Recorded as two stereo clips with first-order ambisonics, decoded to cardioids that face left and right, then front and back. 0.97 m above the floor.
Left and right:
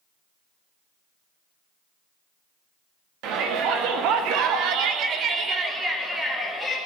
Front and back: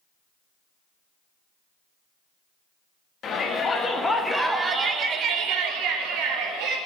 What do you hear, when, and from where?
3.2 s a shout: 60° right, 1.8 m; by 6.8 s straight behind, 2 m